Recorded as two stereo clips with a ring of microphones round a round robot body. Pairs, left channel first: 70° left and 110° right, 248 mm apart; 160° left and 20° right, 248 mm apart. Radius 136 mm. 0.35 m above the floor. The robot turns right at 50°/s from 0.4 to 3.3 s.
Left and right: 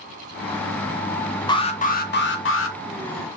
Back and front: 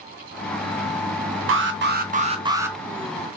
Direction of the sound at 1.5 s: 5° right.